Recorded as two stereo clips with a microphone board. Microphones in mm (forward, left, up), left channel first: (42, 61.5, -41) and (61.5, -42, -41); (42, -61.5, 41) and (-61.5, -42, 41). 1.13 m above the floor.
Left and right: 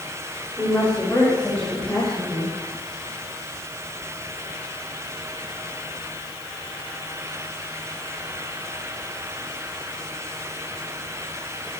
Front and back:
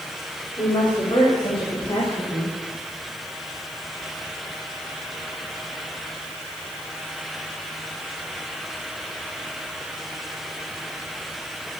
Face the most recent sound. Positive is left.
turn(degrees=15)